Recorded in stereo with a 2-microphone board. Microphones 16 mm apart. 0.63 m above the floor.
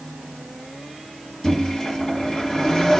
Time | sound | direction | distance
1.4 | a microwave | 50° left (ahead or behind) | 1.7 m